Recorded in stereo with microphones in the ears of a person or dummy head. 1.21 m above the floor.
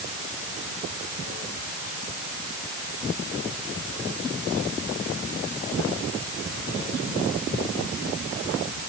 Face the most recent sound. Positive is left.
No sound to turn to.